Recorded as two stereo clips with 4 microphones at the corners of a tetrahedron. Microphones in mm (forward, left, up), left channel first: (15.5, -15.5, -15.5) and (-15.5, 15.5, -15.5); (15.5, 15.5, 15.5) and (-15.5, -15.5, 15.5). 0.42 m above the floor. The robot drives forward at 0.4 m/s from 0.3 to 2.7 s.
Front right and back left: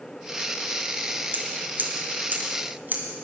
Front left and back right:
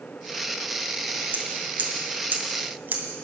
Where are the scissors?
Straight behind, 2 m.